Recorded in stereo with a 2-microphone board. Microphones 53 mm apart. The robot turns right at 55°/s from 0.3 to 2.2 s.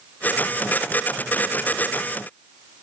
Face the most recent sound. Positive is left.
No sound to turn to.